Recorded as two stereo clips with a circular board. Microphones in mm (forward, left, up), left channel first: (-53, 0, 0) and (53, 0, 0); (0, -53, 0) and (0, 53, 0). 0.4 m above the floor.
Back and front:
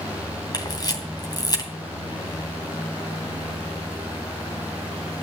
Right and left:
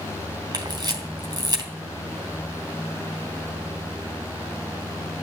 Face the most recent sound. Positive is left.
turn(degrees=135)